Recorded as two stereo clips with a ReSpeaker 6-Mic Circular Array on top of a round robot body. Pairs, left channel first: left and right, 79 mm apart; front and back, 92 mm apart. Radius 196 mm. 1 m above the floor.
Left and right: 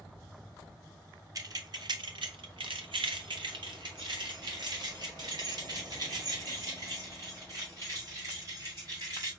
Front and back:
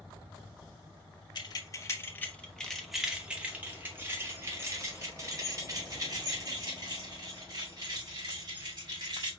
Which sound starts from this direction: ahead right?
Keys jangling, at 1.4 s.